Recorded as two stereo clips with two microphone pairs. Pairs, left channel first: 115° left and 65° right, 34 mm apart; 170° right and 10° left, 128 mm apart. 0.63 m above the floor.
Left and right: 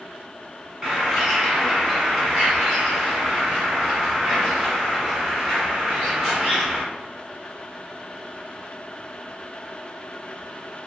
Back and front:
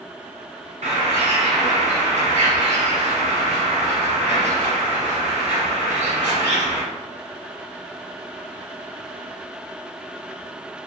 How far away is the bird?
About 1.2 m.